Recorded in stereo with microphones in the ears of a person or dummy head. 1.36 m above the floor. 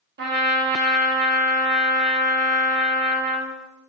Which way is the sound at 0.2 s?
45° right (ahead or behind).